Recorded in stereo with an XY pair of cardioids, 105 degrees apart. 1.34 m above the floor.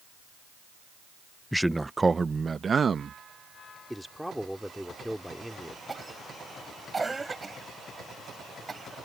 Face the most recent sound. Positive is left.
turn(degrees=-25)